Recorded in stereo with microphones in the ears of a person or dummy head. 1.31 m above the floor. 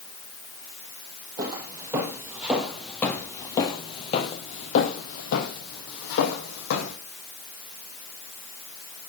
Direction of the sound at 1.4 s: 30° right (ahead or behind).